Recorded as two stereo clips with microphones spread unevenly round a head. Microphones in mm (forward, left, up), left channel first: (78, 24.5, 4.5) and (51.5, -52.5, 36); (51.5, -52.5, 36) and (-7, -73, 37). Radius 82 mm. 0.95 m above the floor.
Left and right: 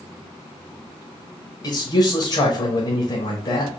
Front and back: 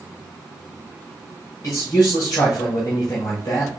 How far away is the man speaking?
About 1.1 m.